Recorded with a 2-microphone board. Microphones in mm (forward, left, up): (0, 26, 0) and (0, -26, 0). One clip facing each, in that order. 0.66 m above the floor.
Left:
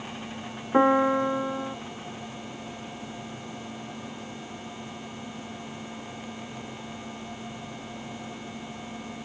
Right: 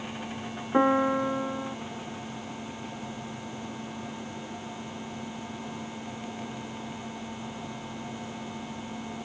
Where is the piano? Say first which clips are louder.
Left 3 dB; 10° left (ahead or behind).